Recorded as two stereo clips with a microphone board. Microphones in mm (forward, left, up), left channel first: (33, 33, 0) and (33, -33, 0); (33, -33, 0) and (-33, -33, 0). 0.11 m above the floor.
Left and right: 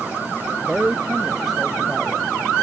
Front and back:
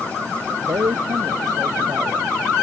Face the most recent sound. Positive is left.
turn(degrees=-175)